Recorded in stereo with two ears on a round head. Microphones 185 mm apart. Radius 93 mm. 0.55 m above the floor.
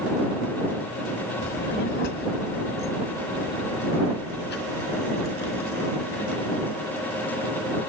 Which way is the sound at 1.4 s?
50° left (ahead or behind).